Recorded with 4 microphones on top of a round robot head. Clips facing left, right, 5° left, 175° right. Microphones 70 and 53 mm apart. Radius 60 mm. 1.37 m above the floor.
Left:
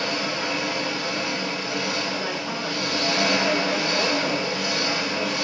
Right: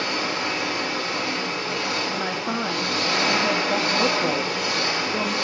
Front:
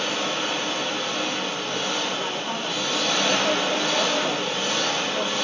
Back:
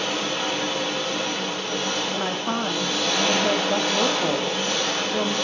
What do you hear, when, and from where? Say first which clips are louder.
0.0 s an engine running: right 1 dB, even; 140° right, 3 m
2.1 s a woman speaking: right 2 dB, back 2 dB; 145° right, 0.7 m